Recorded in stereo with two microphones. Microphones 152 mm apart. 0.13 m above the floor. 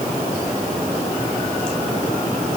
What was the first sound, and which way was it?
Only background noise.